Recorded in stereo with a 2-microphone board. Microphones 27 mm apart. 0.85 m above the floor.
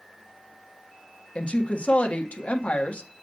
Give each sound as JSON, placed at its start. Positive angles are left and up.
{"t": 1.4, "sound": "a woman speaking", "side_deg": 50, "distance_m": 1.5}